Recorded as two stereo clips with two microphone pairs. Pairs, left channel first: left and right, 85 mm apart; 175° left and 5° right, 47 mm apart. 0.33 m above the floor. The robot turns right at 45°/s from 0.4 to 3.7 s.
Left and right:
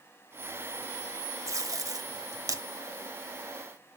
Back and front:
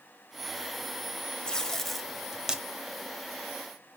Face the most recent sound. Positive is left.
turn(degrees=-20)